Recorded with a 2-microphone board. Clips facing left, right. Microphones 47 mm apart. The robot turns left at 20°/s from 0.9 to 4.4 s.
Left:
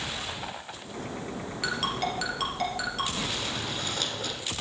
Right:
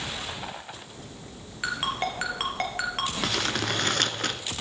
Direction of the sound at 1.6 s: 20° right (ahead or behind).